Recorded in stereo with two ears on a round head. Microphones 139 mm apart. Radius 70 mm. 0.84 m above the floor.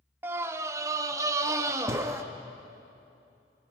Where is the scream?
15° right (ahead or behind), 0.7 m; by 2.2 s 20° right (ahead or behind), 1.3 m.